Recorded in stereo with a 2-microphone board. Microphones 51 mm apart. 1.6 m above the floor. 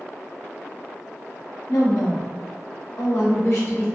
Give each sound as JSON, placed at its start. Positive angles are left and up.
{"t": 1.7, "sound": "a woman speaking", "side_deg": 70, "distance_m": 0.8}